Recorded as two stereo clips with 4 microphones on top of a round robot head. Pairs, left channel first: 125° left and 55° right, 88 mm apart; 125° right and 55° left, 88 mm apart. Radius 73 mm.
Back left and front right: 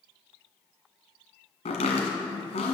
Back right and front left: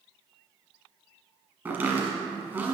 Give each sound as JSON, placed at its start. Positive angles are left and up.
{"t": 1.6, "sound": "chopping", "azimuth_deg": 125, "distance_m": 1.6}